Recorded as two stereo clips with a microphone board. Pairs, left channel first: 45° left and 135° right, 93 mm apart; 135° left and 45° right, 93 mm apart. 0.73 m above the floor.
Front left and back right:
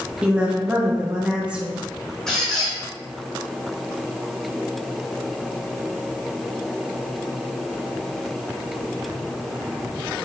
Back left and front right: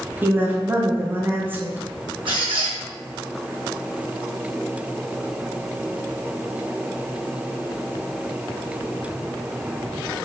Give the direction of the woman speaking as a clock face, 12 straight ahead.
2 o'clock.